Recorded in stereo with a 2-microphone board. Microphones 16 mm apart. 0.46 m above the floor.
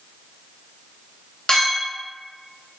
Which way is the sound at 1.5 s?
60° left (ahead or behind).